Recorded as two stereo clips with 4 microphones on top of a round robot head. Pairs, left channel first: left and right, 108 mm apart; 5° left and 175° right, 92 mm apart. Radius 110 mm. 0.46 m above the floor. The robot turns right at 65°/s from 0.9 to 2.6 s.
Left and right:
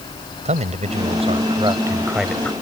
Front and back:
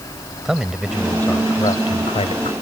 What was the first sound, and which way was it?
A man speaking, 90° right.